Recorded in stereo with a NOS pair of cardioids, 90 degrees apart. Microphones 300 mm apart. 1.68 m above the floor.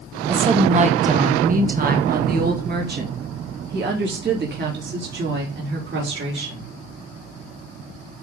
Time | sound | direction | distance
0.3 | a woman speaking | 20° right | 1.2 m